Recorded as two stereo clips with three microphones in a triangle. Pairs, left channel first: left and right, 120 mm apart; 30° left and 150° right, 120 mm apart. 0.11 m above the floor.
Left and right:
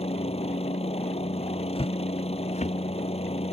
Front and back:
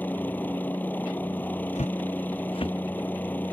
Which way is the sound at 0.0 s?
100° left.